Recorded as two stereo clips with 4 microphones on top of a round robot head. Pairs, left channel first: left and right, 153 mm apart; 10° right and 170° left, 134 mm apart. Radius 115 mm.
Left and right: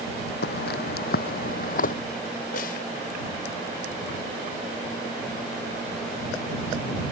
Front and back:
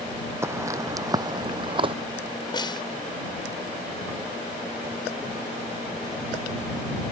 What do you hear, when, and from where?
0.4 s footsteps: 100° left; by 1.9 s 120° left
2.5 s a snare drum: 45° left